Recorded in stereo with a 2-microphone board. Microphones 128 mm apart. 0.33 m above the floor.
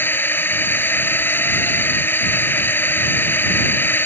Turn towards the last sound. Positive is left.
turn(degrees=15)  # may be behind; listen again after turning